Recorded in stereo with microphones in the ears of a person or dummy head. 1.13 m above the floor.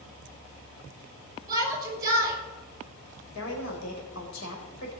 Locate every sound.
1.5 s a shout: 15° right (ahead or behind), 6 m
3.4 s a woman speaking: 70° left (ahead or behind), 4.5 m